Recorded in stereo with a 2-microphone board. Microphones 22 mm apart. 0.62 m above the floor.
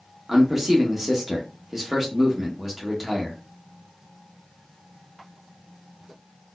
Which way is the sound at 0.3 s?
10° right (ahead or behind).